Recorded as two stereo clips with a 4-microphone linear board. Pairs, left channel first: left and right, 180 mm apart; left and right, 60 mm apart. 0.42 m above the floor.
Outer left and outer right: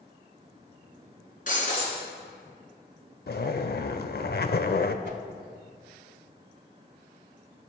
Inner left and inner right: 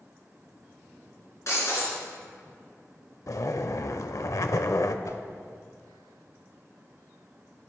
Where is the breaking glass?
50° left (ahead or behind), 3.5 m.